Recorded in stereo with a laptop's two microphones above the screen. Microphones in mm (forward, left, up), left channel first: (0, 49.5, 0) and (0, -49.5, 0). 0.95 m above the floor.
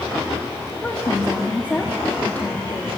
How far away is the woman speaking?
About 1.5 m.